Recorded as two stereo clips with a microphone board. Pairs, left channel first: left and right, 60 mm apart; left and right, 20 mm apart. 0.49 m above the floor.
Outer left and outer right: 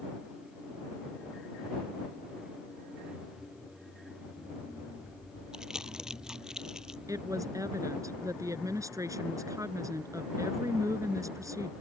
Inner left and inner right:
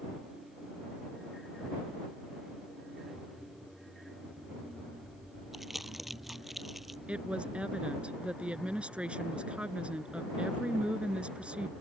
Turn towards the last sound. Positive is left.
turn(degrees=-65)  # may be behind; listen again after turning